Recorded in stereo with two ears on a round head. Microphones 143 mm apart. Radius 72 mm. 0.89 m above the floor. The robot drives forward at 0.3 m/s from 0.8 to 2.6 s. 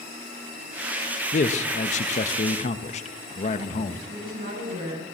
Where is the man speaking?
45° left (ahead or behind), 0.7 m.